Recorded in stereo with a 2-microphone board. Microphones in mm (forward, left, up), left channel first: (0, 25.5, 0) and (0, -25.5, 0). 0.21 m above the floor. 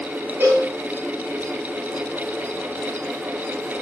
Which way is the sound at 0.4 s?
45° right (ahead or behind).